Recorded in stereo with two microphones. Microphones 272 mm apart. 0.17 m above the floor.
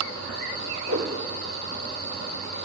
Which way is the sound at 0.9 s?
85° right.